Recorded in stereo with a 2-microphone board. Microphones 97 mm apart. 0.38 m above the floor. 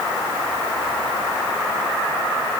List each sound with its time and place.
Only background noise.